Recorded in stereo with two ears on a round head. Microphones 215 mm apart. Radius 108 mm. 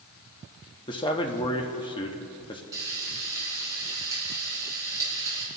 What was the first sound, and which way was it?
A man speaking, 20° left (ahead or behind).